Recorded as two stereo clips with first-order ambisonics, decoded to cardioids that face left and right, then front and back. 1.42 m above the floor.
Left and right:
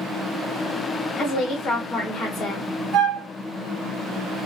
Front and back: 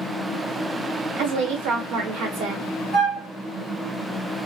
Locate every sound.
1.2 s a woman speaking: 175° left, 0.9 m
2.9 s a flute: 90° right, 1.6 m